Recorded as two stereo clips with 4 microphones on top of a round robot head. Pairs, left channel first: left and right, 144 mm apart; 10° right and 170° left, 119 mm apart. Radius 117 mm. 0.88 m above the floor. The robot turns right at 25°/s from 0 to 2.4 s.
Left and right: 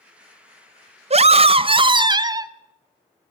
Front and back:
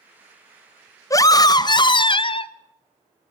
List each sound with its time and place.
1.1 s a scream: 65° right, 1.3 m; by 2.5 s 35° right, 1.3 m